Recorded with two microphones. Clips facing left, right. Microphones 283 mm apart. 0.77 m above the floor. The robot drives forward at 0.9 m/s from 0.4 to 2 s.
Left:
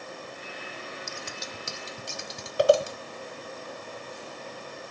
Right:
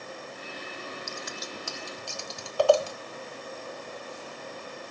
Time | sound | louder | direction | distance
1.1 | scissors | right 1 dB | 40° left (ahead or behind) | 0.9 m